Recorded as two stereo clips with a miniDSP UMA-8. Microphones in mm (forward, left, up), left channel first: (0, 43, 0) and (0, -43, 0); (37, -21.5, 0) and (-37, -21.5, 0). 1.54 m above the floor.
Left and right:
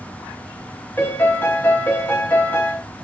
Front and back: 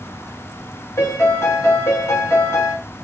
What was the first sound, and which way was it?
A piano, 30° left.